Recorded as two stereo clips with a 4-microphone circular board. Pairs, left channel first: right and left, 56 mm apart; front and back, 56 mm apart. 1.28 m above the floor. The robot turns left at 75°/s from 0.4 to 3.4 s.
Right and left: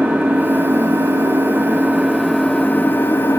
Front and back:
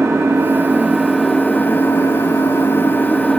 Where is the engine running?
145° left, 1.6 m; by 3.4 s 80° right, 1.6 m.